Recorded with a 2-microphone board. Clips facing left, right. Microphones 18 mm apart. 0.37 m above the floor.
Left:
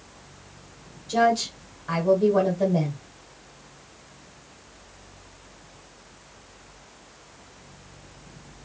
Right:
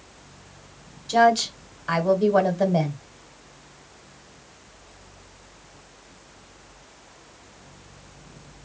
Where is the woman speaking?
35° right (ahead or behind), 1.1 m.